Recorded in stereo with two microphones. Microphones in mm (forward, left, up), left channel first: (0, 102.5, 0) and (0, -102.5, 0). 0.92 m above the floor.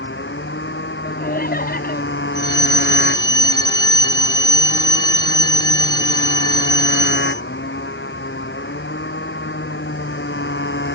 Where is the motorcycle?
65° left (ahead or behind).